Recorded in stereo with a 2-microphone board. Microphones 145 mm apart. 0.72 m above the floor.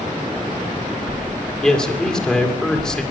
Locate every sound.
1.6 s a man speaking: 5° left (ahead or behind), 2.5 m